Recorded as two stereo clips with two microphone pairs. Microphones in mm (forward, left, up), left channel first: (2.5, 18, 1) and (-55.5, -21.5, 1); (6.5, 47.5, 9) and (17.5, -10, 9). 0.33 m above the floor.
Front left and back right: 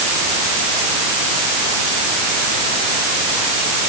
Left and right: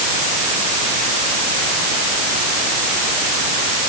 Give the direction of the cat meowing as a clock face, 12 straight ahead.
I don't hear a cat meowing.